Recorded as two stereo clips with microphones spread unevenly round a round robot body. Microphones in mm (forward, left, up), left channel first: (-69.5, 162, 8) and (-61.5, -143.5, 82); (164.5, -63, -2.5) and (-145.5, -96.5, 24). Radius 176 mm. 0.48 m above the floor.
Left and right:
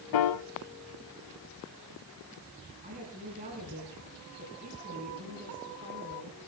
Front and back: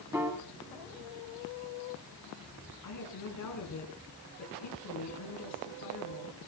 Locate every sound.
0.1 s a piano: 105° left, 0.7 m
2.8 s a woman speaking: 20° right, 6.5 m